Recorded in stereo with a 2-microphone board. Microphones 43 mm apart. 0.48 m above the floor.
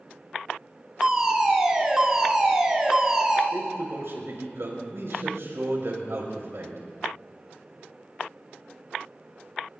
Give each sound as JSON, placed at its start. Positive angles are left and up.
{"t": 1.0, "sound": "a fire alarm", "side_deg": -15, "distance_m": 3.0}
{"t": 3.5, "sound": "a man speaking", "side_deg": -80, "distance_m": 5.0}